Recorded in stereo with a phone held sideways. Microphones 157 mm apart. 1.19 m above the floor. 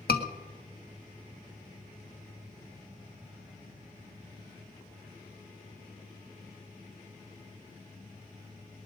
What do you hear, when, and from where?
0.1 s a scream: 85° left, 1.7 m